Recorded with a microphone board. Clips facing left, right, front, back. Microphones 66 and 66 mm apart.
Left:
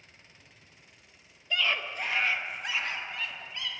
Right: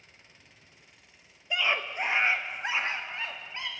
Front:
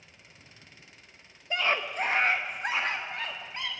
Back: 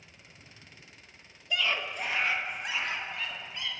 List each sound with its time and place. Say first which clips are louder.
1.5 s a scream: right 1 dB, front 3 dB; 30° right, 1.0 m; by 3.7 s 35° right, 2.5 m